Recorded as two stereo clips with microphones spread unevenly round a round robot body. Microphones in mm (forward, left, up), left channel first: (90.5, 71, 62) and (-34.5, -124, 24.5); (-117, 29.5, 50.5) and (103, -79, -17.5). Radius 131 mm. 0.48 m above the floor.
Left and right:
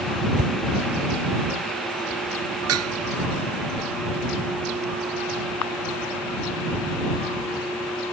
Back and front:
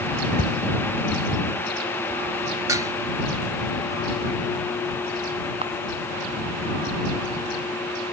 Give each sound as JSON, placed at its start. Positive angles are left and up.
{"t": 0.4, "sound": "a whoosh", "azimuth_deg": -145}
{"t": 2.7, "sound": "dishes clattering", "azimuth_deg": -105}
{"t": 5.6, "sound": "a camera shutter", "azimuth_deg": 45}